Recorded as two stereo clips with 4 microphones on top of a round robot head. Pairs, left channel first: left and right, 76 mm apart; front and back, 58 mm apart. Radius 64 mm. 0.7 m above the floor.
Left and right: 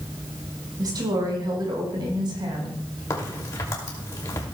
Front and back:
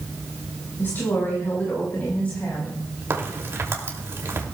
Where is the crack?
145° left, 2.5 m.